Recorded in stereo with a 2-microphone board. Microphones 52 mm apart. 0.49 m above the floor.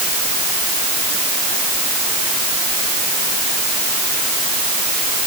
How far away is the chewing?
No chewing in this recording.